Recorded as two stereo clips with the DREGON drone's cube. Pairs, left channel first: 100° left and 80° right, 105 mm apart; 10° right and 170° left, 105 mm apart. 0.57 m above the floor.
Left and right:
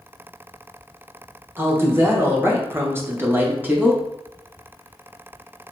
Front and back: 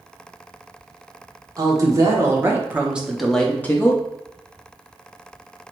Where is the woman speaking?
140° right, 1.5 m; by 4.0 s 25° right, 0.9 m.